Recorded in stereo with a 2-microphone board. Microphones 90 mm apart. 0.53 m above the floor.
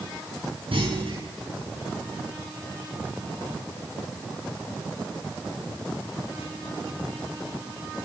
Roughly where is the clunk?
Right.